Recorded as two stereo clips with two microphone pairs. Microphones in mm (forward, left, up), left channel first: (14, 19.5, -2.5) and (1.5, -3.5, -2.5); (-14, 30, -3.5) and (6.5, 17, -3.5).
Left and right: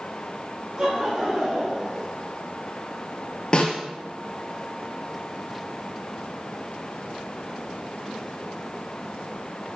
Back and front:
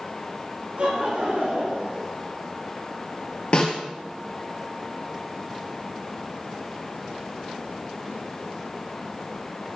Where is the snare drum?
110° left, 3 m.